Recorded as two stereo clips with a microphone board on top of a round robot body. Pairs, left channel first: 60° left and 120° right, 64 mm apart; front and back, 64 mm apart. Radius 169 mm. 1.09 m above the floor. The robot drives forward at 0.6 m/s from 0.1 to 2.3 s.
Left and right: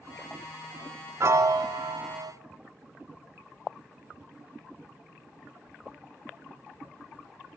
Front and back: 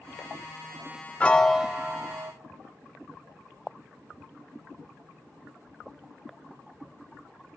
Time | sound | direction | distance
1.2 | a piano | 70° right | 0.6 m